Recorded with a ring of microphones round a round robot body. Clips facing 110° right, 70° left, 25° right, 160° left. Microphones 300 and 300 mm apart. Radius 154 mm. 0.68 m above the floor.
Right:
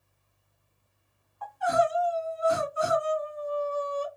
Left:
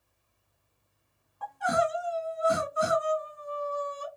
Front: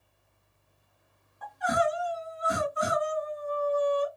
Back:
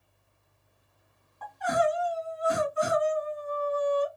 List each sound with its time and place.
1.4 s crying: 60° left, 1.9 m